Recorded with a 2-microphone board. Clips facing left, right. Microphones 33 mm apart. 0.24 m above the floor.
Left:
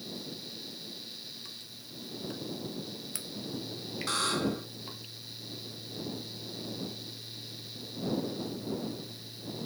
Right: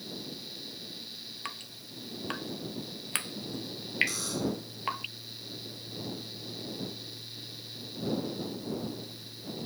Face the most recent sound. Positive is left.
turn(degrees=60)  # may be behind; listen again after turning